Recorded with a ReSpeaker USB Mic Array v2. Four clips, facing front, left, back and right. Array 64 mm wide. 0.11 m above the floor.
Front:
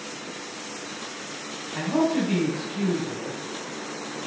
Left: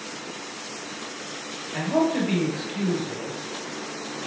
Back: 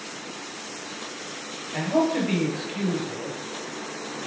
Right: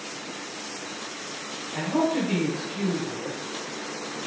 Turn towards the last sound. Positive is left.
turn(degrees=155)